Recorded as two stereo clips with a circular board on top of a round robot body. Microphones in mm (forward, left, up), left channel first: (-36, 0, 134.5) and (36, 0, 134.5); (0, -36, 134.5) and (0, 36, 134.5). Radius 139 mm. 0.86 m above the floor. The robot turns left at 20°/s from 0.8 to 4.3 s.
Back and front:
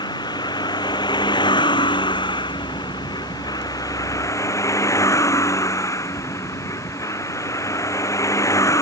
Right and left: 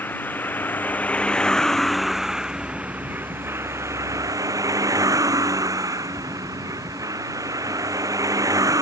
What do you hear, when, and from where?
0.0 s a vehicle: 160° right; by 8.8 s 130° left